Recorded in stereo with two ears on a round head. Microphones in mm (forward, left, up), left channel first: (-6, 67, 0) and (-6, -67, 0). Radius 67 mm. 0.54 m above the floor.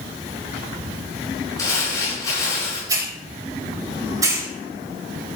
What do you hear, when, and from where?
1.6 s crumpling: 20° left (ahead or behind), 6 m
2.9 s a hiss: 25° right (ahead or behind), 3 m